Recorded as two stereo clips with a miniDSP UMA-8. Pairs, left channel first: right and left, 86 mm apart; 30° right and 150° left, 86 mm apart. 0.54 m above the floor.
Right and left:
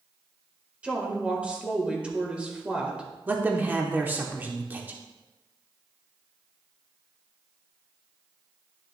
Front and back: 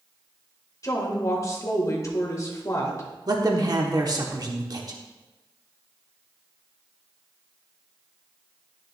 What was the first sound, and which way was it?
A woman speaking, 15° left.